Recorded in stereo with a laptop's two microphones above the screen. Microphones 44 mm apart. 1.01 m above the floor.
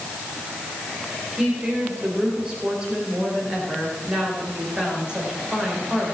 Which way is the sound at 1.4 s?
20° right (ahead or behind).